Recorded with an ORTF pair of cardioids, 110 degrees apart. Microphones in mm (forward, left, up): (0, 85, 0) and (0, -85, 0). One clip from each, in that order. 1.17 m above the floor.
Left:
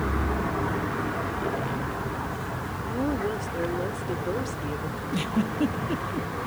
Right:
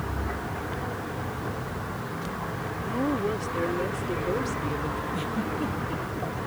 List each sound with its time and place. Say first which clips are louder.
2.8 s a woman speaking: right 1 dB; 5° right
5.1 s a giggle: left 1 dB; 40° left